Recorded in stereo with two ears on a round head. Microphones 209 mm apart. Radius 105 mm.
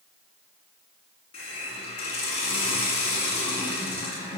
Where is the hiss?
25° left (ahead or behind), 5 m.